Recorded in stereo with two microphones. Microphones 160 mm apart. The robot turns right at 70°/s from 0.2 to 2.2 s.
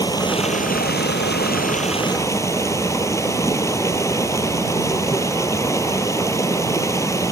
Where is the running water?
20° left; by 7.3 s 160° left.